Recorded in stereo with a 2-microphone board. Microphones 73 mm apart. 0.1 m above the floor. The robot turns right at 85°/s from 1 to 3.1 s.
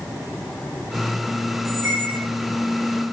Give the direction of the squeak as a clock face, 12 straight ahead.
3 o'clock.